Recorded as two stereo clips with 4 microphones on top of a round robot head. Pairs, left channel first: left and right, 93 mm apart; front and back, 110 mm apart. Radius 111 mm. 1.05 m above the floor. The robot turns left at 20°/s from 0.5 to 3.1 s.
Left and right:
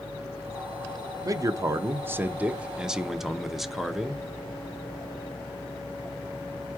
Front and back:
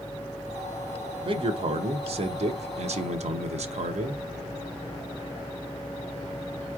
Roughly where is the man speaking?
Behind right.